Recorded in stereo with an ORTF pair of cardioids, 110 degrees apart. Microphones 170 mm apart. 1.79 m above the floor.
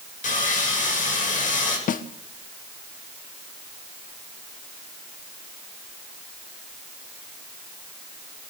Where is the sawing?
50° left, 8 m.